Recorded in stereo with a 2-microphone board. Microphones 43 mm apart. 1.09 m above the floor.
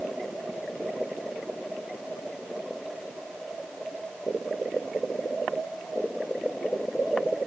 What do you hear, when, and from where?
Only background noise.